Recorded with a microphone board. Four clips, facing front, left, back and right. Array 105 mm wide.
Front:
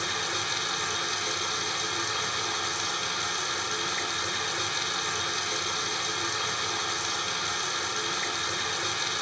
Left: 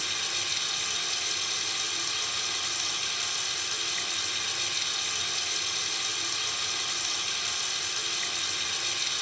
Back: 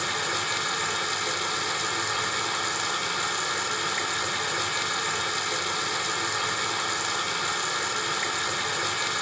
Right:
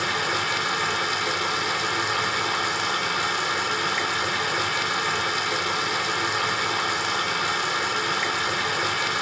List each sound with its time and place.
0.0 s running water: 105° right, 1.0 m